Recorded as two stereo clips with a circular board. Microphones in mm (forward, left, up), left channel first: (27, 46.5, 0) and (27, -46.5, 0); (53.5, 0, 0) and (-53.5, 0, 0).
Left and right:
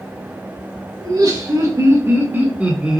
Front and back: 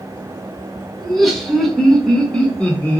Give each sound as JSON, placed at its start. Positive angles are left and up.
{"t": 1.0, "sound": "laughter", "azimuth_deg": -90, "distance_m": 1.7}